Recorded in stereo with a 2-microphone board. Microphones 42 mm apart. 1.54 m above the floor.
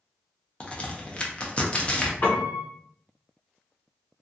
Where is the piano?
50° left (ahead or behind), 0.8 m.